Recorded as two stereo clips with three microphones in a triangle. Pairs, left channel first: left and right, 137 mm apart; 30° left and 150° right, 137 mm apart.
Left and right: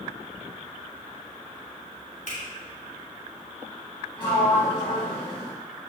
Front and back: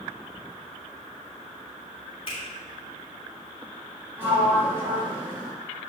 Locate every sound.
2.3 s a finger snap: 75° left, 3 m
4.2 s a sliding door: 140° left, 2.5 m